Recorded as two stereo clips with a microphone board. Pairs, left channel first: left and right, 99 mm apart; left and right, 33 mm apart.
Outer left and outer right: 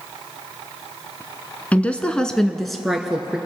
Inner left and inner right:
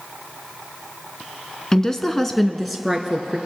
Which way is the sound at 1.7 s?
15° left (ahead or behind).